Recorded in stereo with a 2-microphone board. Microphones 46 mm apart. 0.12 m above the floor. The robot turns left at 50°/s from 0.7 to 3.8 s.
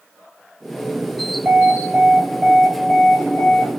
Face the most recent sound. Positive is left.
turn(degrees=85)